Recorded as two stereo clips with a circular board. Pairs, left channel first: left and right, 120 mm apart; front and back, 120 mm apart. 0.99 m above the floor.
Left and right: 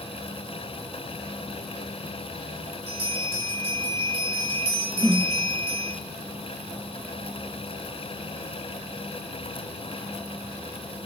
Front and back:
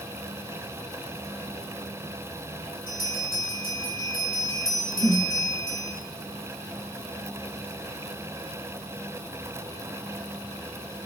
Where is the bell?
65° right, 1.9 m.